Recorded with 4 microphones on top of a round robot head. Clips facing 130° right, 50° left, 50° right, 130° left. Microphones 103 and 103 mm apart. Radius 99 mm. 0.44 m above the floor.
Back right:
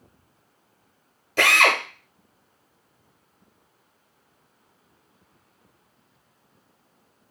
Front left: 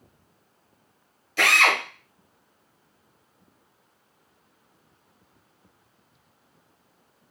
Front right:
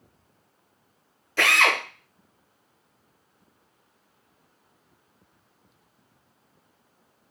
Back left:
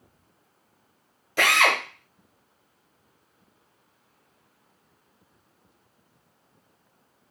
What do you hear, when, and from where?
1.4 s a drill: 155° right, 1.0 m